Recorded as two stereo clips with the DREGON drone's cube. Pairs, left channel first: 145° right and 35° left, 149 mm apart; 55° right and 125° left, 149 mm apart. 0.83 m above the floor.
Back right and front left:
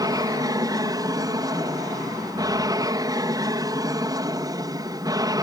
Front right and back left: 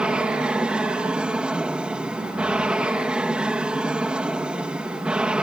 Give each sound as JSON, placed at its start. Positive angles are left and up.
{"t": 0.0, "sound": "an aircraft", "azimuth_deg": 50}